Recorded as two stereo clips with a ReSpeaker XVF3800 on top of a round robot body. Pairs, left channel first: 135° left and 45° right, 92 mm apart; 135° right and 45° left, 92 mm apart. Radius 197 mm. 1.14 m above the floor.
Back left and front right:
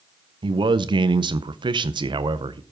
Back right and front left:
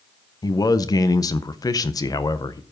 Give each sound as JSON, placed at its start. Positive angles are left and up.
{"t": 0.4, "sound": "a man speaking", "azimuth_deg": -85, "distance_m": 0.6}